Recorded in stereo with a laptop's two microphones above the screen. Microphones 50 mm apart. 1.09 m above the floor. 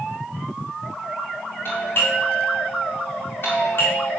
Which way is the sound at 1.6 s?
45° left (ahead or behind).